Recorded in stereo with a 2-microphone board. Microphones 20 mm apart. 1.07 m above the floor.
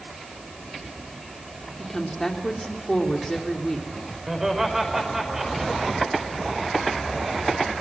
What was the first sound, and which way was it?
A woman speaking, 20° left (ahead or behind).